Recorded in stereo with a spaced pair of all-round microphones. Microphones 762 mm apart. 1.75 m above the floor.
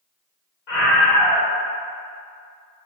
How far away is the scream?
About 1.3 m.